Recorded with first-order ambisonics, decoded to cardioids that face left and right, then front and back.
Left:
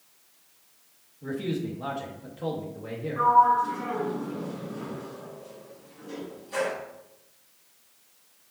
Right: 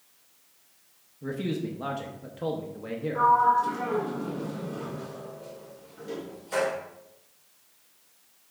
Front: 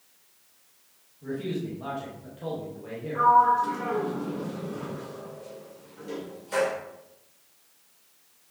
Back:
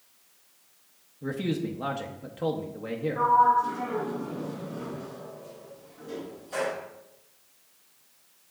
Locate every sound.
1.2 s a man speaking: 155° right, 0.8 m
3.1 s a sliding door: 45° right, 2.5 m